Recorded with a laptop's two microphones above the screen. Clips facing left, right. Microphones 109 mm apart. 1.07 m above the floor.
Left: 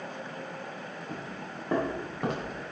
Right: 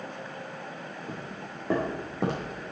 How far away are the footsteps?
About 5 m.